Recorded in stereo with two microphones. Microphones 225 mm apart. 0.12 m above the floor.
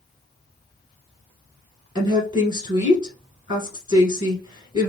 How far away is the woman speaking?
About 1.4 m.